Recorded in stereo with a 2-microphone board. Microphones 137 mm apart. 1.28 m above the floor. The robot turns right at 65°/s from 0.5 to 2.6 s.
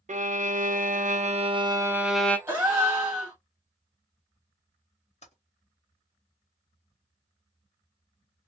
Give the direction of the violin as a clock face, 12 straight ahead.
4 o'clock.